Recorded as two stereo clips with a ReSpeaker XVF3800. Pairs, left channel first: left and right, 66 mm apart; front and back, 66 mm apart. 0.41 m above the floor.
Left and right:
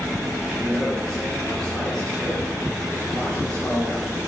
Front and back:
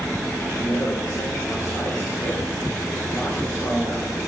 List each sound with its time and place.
0.6 s a man speaking: 10° left, 5 m